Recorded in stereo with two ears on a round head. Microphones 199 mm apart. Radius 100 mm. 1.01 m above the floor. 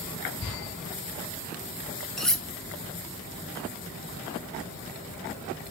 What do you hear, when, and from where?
2.2 s cutlery clinking: centre (ahead or behind), 0.7 m